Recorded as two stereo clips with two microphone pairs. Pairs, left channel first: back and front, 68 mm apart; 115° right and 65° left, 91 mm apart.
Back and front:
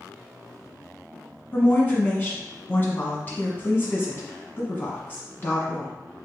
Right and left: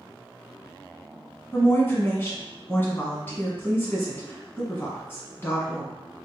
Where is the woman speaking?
155° right, 1.2 m.